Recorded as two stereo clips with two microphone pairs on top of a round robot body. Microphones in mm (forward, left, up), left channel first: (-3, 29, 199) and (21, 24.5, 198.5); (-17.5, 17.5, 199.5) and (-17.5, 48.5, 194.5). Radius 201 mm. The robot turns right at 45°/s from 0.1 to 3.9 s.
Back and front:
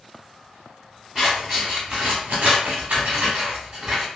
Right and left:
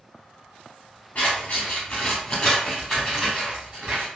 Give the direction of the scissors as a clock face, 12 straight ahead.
4 o'clock.